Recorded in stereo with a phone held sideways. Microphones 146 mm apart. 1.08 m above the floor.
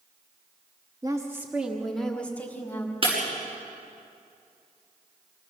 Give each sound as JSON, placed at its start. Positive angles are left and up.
{"t": 1.0, "sound": "a woman speaking", "side_deg": -25, "distance_m": 1.3}
{"t": 3.0, "sound": "breaking glass", "side_deg": -40, "distance_m": 6.5}